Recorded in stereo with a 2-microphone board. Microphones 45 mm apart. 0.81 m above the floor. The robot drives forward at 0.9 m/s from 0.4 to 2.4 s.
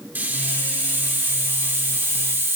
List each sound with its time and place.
0.1 s a hiss: 40° right (ahead or behind), 3 m; by 2.6 s 60° right (ahead or behind), 2 m